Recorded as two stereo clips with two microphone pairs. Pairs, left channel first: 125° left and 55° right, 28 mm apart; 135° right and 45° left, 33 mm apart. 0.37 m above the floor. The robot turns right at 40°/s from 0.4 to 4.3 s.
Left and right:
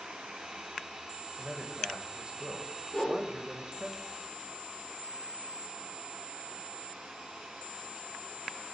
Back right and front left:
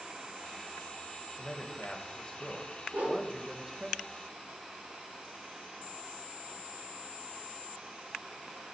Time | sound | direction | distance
1.4 | a man speaking | 110° right | 1.7 m
2.9 | a whoosh | 65° left | 6 m